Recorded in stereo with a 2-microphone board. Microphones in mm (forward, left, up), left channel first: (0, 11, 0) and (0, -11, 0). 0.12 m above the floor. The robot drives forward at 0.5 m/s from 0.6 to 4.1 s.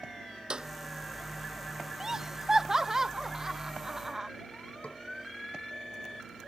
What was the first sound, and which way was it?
A clap, 45° right (ahead or behind).